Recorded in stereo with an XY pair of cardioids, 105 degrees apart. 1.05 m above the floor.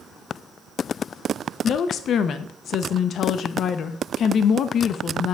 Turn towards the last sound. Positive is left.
turn(degrees=60)